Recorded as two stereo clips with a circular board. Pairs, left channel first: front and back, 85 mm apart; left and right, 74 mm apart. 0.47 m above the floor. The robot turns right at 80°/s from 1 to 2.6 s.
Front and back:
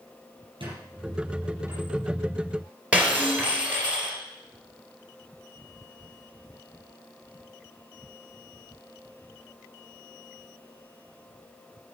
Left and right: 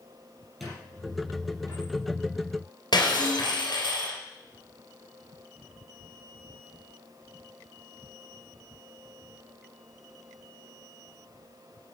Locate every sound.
0.6 s a squeak: straight behind, 5 m; by 1.9 s 105° right, 5 m
2.9 s breaking glass: 105° left, 2.5 m